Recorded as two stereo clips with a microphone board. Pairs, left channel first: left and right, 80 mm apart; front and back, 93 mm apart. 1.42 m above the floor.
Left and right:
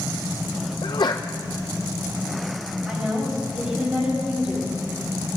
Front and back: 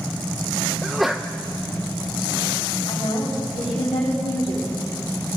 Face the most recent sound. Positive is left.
turn(degrees=-10)